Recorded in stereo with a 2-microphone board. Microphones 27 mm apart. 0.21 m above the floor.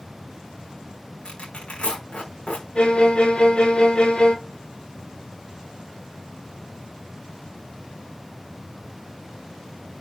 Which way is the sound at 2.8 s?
35° left (ahead or behind).